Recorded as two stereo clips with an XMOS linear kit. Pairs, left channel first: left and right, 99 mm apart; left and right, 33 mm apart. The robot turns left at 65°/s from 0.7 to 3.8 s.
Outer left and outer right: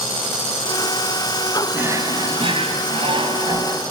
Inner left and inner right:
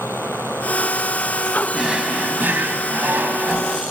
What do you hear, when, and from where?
1.7 s a drawer: 20° right, 1.6 m; by 3.8 s 155° right, 1.6 m